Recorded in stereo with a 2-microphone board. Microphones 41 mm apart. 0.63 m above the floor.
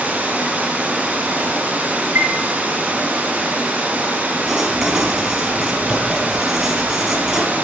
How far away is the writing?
About 2.5 m.